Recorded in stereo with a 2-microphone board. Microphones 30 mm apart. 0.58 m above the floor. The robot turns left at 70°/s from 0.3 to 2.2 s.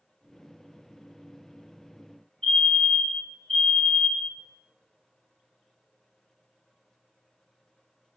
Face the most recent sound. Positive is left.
turn(degrees=40)  # may be behind; listen again after turning